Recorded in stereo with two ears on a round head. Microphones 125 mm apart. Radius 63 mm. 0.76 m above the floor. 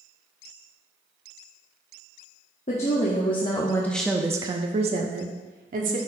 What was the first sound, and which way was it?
A woman speaking, 55° left (ahead or behind).